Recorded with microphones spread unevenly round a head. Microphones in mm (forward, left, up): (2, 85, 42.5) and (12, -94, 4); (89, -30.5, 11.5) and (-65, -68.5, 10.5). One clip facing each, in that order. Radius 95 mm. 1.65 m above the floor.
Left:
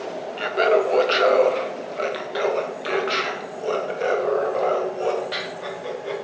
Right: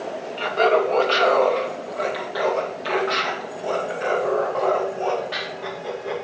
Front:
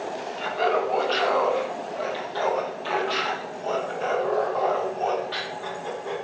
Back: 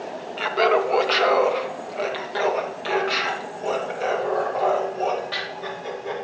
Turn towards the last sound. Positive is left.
turn(degrees=140)